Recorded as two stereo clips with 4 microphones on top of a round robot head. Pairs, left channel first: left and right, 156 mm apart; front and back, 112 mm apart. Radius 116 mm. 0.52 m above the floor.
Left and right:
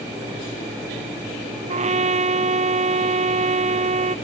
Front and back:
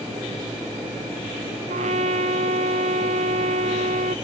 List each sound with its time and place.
1.7 s a trumpet: 135° right